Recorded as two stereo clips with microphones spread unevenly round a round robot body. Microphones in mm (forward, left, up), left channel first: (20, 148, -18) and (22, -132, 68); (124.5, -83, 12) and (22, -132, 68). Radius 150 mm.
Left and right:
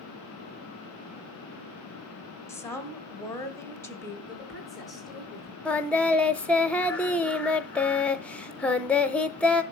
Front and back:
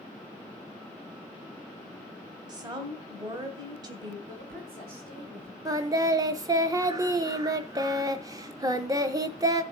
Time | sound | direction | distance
2.5 | a woman speaking | 130° left | 1.4 m
4.3 | a woman speaking | 175° left | 5 m
5.7 | singing | 115° left | 0.6 m